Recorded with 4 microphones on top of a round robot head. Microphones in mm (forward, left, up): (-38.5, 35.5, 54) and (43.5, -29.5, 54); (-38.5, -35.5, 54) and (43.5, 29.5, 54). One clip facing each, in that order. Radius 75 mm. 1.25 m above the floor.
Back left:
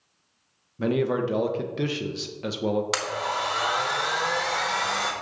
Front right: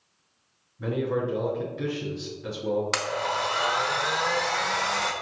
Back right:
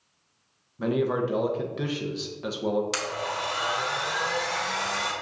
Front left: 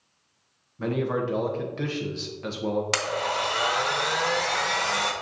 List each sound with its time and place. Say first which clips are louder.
0.8 s a man speaking: back left 3 dB, back right 1 dB; 135° left, 1.0 m
2.9 s a blender: even, front left 3 dB; 60° left, 1.2 m